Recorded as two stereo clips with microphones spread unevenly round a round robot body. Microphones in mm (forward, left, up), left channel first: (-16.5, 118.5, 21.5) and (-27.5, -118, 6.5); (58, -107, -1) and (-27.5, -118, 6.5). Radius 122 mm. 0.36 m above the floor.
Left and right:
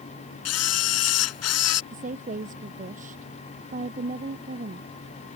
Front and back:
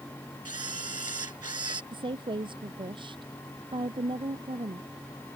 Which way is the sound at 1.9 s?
150° right.